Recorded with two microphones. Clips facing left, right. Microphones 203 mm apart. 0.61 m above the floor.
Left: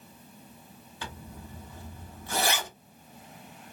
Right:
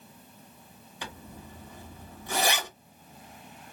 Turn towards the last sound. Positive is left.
turn(degrees=-15)  # may be behind; listen again after turning